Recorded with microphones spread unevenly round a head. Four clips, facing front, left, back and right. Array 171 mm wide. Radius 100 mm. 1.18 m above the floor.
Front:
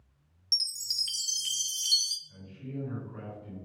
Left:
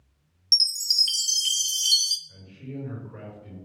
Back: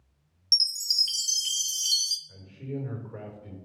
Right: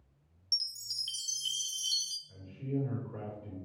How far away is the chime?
About 0.8 m.